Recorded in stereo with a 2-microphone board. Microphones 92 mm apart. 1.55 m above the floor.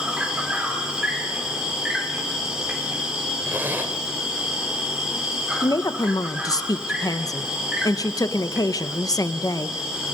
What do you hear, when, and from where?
0.0 s an insect: 10° right (ahead or behind), 4 m
3.5 s a zipper: 20° right (ahead or behind), 1.8 m
5.6 s a woman speaking: 40° left (ahead or behind), 1.0 m